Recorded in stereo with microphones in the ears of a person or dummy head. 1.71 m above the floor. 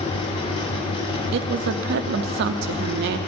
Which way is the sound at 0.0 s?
30° left (ahead or behind).